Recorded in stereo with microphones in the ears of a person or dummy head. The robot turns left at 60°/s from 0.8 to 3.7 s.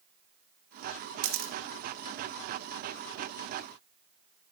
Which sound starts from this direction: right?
A camera shutter, at 1.2 s.